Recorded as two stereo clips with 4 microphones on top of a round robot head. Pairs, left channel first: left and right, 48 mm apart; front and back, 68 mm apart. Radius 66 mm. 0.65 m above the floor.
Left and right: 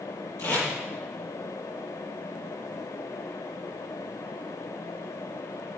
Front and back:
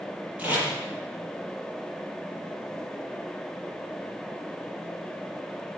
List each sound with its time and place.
0.4 s tape being pulled: 110° left, 8.5 m